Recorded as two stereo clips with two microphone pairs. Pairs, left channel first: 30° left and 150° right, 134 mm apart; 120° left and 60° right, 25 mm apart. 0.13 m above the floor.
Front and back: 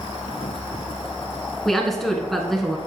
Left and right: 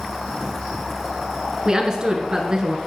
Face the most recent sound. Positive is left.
turn(degrees=-60)